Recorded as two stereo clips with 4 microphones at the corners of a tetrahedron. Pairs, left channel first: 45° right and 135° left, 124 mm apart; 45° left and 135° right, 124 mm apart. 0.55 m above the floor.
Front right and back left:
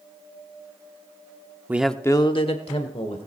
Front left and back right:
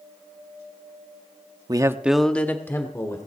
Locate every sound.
1.7 s a man speaking: 165° right, 0.7 m; by 3.3 s 20° right, 1.9 m